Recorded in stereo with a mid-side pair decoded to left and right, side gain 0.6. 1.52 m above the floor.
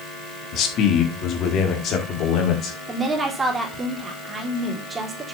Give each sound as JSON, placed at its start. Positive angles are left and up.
{"t": 0.5, "sound": "a man speaking", "azimuth_deg": 55, "distance_m": 2.5}
{"t": 2.9, "sound": "a woman speaking", "azimuth_deg": -25, "distance_m": 3.5}